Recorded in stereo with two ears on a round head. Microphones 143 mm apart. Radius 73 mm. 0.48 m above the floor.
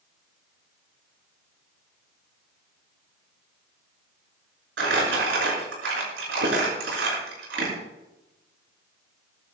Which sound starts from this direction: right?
Crumpling, at 4.8 s.